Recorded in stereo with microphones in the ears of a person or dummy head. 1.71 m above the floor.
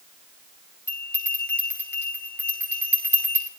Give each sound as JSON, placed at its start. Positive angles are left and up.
{"t": 0.9, "sound": "a bell", "side_deg": 10, "distance_m": 5.0}